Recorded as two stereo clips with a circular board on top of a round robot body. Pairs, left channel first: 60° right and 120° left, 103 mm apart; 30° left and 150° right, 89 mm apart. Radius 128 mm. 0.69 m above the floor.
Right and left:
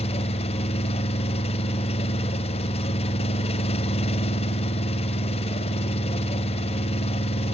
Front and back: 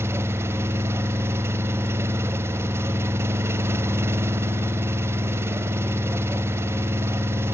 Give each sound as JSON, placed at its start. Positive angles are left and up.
{"t": 0.0, "sound": "an engine running", "azimuth_deg": -90, "distance_m": 0.9}